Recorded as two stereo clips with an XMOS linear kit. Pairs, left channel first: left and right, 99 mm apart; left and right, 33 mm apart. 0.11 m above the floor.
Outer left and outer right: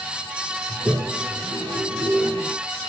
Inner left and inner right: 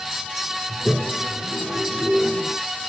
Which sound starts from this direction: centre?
A toilet flushing, at 0.7 s.